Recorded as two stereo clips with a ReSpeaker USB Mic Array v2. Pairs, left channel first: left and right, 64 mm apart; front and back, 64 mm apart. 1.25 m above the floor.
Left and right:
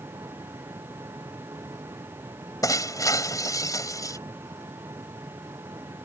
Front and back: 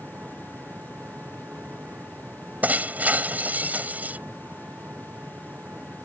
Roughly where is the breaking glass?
Behind left.